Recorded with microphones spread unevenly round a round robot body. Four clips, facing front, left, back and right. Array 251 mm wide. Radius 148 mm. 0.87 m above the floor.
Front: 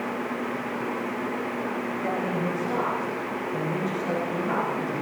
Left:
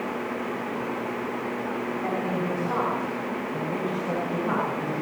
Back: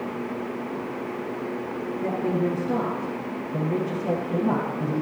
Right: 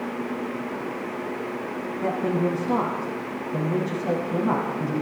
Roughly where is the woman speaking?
Behind right.